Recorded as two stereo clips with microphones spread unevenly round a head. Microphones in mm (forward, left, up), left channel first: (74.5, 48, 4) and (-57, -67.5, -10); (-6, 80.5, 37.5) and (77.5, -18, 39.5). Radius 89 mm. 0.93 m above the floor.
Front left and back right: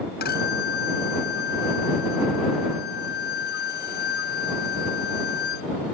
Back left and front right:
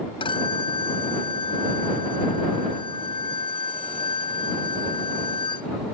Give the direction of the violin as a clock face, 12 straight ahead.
9 o'clock.